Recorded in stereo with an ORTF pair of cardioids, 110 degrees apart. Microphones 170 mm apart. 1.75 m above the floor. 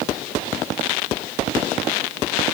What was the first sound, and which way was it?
Only background noise.